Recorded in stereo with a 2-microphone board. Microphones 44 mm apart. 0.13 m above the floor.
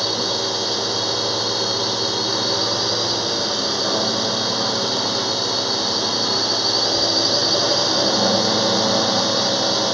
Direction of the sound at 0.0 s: 5° right (ahead or behind).